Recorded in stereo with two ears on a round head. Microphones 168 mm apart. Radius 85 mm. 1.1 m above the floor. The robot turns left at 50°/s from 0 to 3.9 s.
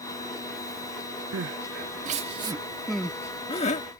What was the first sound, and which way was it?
Crying, 80° right.